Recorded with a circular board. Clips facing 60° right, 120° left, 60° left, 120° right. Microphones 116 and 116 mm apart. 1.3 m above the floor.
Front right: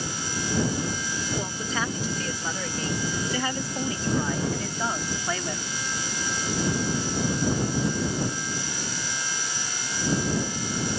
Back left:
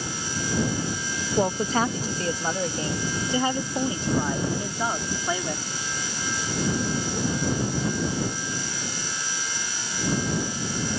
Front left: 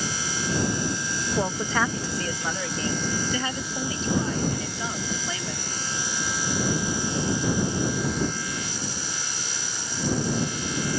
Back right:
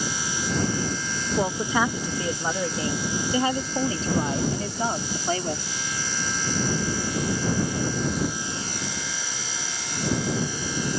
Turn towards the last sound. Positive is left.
turn(degrees=-160)